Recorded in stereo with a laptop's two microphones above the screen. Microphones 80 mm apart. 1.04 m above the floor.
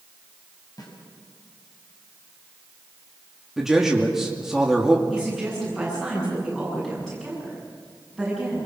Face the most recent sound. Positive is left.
turn(degrees=5)  # may be behind; listen again after turning